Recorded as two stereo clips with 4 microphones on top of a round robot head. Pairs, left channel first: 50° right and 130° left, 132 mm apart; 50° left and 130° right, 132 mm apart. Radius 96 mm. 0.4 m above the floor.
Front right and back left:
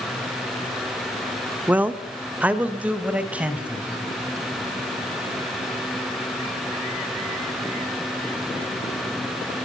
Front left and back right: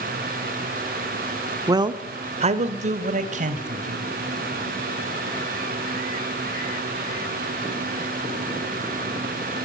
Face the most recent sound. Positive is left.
turn(degrees=-145)